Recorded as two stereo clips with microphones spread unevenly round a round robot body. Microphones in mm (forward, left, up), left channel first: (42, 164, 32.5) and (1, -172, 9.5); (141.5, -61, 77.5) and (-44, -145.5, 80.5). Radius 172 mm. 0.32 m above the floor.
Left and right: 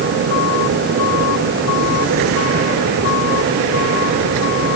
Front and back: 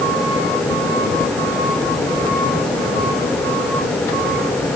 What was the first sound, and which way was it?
Only background noise.